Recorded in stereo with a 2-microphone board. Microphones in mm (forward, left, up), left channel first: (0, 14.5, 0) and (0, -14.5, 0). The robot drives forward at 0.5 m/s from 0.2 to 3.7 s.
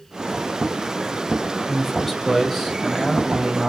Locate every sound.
1.7 s a man speaking: centre (ahead or behind), 2 m